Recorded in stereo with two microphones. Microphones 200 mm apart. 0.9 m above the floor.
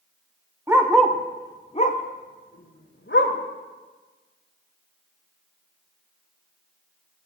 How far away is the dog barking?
About 1.0 m.